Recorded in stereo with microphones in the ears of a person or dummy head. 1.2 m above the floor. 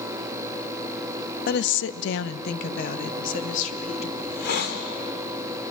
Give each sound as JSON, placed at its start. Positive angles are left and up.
{"t": 1.5, "sound": "a woman speaking", "side_deg": 45, "distance_m": 0.7}
{"t": 4.2, "sound": "a hiss", "side_deg": 60, "distance_m": 2.5}